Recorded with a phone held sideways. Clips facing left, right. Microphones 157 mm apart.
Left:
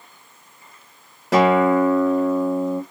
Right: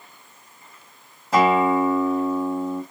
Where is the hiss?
I don't hear a hiss.